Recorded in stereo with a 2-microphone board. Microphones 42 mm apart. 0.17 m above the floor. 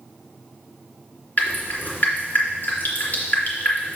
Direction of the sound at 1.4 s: 50° left (ahead or behind).